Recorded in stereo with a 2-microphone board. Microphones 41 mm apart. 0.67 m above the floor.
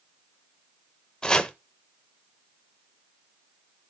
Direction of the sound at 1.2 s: 20° left (ahead or behind).